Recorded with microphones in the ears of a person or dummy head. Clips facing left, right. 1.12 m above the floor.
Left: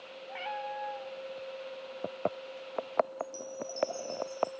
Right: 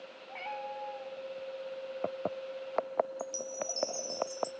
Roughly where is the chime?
Right.